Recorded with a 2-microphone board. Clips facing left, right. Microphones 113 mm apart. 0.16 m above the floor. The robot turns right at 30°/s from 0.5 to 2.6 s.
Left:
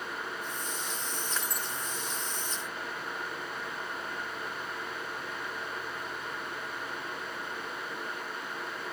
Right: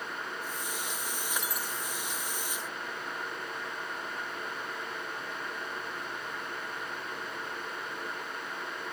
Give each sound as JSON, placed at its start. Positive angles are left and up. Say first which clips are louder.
{"t": 1.4, "sound": "breaking glass", "louder": "even", "side_deg": -15}